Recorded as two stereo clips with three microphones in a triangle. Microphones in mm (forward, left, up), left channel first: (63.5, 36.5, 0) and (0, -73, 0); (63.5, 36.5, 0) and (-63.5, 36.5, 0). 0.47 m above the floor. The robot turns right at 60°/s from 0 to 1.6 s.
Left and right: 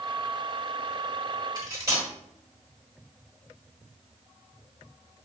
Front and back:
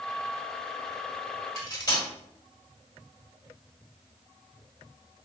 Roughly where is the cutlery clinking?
Ahead right.